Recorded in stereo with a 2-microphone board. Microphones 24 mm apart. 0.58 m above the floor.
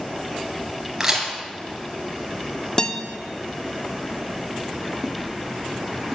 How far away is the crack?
About 3 m.